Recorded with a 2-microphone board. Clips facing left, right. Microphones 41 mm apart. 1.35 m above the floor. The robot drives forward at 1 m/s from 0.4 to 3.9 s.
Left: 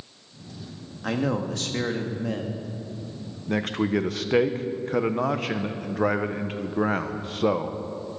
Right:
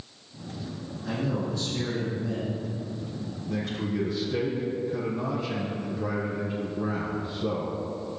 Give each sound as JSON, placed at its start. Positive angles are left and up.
{"t": 1.0, "sound": "a man speaking", "side_deg": 75, "distance_m": 2.0}
{"t": 3.5, "sound": "a man speaking", "side_deg": 65, "distance_m": 1.2}